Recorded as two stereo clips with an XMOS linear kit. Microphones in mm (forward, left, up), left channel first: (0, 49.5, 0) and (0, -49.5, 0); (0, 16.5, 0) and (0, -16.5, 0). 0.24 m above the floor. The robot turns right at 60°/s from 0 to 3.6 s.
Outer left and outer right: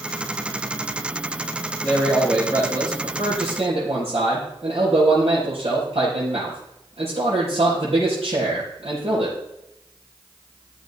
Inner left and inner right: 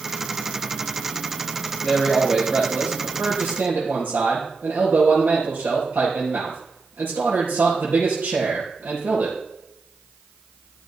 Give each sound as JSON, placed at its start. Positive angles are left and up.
{"t": 1.8, "sound": "a man speaking", "azimuth_deg": 170, "distance_m": 5.0}